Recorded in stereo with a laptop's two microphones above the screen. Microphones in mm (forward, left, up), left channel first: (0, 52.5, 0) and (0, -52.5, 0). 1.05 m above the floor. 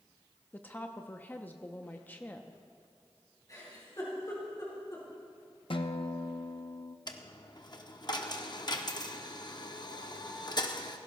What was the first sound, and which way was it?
A woman speaking, 15° left (ahead or behind).